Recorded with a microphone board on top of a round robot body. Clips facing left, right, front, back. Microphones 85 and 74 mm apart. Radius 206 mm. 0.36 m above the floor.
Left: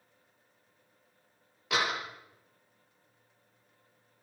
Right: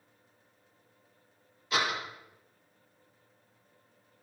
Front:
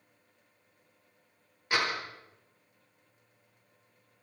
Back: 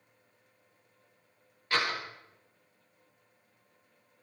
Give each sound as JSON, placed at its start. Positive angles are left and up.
{"t": 1.7, "sound": "a door slam", "azimuth_deg": 75, "distance_m": 8.5}